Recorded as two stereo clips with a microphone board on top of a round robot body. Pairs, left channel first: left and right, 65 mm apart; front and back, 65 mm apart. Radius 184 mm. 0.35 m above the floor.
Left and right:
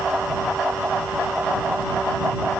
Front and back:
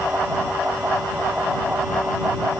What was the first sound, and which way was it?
Only background noise.